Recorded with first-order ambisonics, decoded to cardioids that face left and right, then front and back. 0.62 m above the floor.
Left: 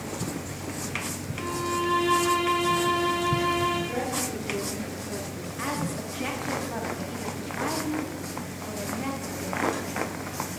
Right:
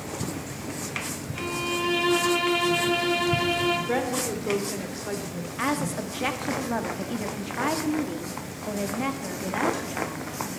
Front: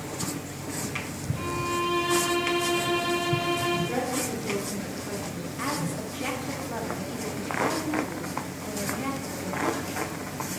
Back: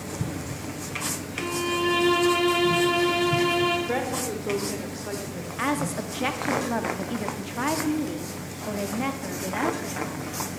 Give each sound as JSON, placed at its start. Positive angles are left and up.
{"t": 1.3, "sound": "a violin", "azimuth_deg": -135, "distance_m": 3.5}
{"t": 3.9, "sound": "a woman speaking", "azimuth_deg": -125, "distance_m": 2.5}
{"t": 5.6, "sound": "a woman speaking", "azimuth_deg": -140, "distance_m": 0.9}